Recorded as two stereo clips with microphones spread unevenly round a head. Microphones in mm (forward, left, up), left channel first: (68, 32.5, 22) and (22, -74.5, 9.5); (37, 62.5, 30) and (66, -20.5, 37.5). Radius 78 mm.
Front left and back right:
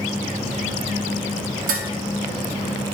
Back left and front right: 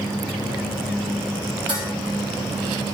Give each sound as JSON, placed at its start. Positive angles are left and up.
{"t": 1.7, "sound": "dishes clattering", "azimuth_deg": -130, "distance_m": 1.3}